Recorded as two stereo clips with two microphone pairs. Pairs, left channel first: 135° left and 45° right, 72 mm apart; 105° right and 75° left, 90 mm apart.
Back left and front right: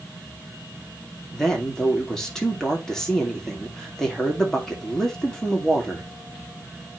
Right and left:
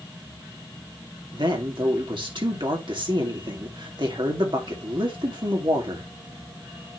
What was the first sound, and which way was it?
A man speaking, 55° left.